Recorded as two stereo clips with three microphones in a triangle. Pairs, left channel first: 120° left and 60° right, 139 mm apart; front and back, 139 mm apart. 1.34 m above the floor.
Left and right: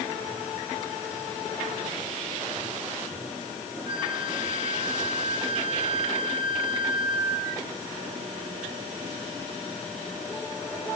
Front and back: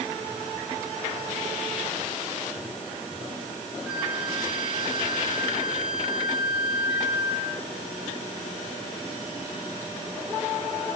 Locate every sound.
3.9 s a flute: 95° left, 1.4 m